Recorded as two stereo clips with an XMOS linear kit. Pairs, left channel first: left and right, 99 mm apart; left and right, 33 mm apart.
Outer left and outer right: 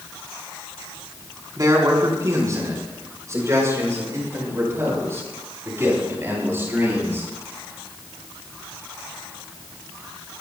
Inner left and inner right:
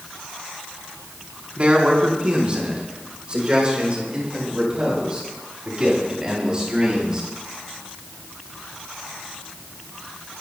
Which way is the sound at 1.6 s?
40° right (ahead or behind).